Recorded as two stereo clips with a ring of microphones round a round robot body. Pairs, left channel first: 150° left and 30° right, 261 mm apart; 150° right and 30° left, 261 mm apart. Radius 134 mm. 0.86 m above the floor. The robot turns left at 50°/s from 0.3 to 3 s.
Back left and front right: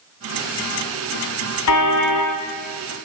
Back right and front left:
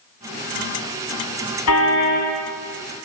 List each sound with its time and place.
1.7 s a car horn: straight behind, 4 m; by 2.3 s 145° left, 4 m